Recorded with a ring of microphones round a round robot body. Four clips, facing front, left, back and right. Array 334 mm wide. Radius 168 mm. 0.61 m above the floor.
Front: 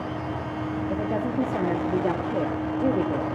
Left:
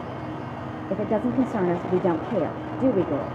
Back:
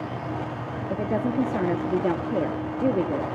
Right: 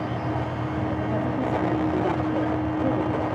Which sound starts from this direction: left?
A woman speaking, at 0.9 s.